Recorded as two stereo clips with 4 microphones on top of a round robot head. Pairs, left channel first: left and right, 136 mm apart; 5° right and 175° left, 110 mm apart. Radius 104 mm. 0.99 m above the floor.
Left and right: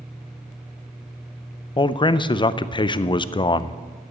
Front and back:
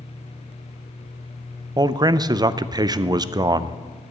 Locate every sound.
1.8 s a man speaking: 135° left, 0.6 m